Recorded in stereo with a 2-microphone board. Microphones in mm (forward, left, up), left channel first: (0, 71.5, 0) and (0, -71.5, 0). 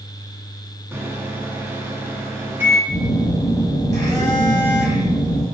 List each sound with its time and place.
0.9 s a microwave: 15° right (ahead or behind), 0.6 m
2.9 s a phone buzzing: 25° left (ahead or behind), 1.9 m